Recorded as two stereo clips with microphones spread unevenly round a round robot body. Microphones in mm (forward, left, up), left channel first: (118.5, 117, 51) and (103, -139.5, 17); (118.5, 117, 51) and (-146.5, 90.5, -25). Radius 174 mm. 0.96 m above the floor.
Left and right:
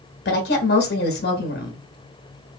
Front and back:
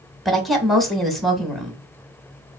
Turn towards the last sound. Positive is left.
turn(degrees=115)